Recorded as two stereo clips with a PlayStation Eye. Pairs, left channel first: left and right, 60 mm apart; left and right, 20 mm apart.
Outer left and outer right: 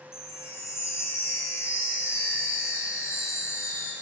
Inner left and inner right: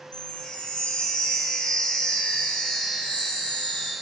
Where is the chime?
50° left (ahead or behind), 1.9 m.